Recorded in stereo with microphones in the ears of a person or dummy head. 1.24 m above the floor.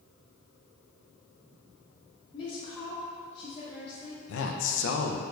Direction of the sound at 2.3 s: 35° left (ahead or behind).